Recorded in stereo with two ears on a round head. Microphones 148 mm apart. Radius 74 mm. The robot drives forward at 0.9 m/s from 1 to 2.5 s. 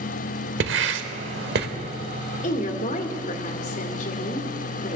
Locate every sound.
0.6 s writing: 80° right, 1.2 m; by 1.7 s 65° right (ahead or behind), 1.3 m
2.4 s a woman speaking: 45° left (ahead or behind), 1.8 m